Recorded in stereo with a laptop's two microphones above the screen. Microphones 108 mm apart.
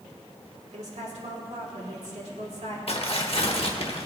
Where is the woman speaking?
75° right (ahead or behind), 2.5 m.